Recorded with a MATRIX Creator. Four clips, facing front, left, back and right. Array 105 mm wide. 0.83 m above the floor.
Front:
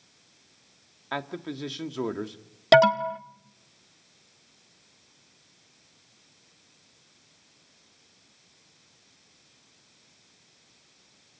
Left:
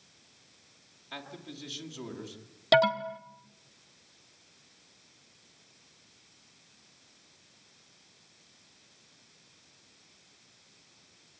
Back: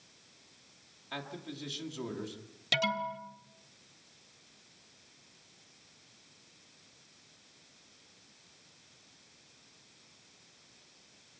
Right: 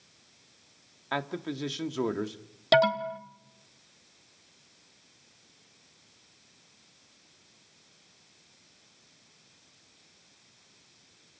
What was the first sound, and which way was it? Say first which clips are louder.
A man speaking: right 11 dB, front 9 dB; 50° right.